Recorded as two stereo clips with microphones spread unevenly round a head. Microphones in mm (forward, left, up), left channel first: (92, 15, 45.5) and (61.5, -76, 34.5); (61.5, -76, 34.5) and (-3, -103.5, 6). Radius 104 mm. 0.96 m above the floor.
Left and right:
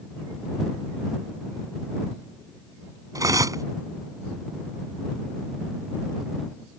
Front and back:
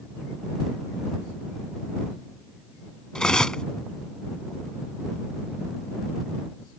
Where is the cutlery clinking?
55° right.